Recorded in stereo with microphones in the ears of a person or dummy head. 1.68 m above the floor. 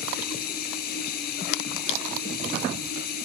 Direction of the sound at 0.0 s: 60° left (ahead or behind).